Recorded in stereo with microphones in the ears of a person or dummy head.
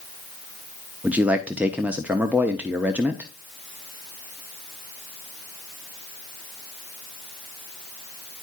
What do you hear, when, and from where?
1.0 s a man speaking: 10° right (ahead or behind), 0.6 m